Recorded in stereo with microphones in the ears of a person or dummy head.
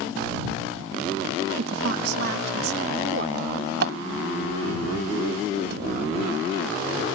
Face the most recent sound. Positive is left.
turn(degrees=-65)  # may be behind; listen again after turning